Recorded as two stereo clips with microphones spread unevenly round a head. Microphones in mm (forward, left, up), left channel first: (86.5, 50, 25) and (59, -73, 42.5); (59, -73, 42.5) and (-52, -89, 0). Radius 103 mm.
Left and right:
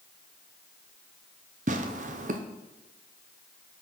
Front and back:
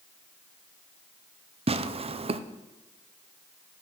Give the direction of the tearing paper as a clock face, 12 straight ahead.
4 o'clock.